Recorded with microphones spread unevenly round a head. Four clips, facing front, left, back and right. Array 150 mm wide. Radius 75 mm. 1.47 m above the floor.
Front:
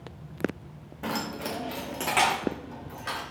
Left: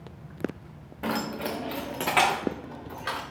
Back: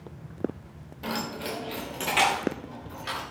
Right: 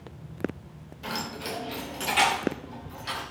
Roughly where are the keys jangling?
Left.